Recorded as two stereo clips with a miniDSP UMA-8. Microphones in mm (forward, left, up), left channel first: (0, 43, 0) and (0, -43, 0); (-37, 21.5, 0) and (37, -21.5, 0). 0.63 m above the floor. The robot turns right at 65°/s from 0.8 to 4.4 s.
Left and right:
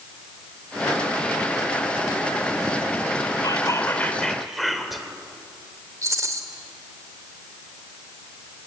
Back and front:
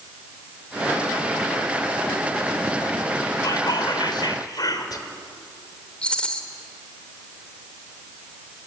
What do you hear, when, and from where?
3.4 s whispering: 115° left, 3 m; by 5.0 s straight behind, 3 m
6.0 s a rattle: 135° right, 2.5 m